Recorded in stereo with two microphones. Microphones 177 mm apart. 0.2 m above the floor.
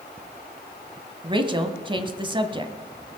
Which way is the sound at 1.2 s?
30° right (ahead or behind).